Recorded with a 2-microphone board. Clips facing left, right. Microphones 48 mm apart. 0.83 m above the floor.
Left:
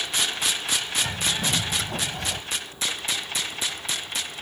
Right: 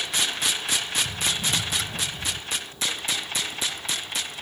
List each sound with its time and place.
1.0 s a bird: 75° left (ahead or behind)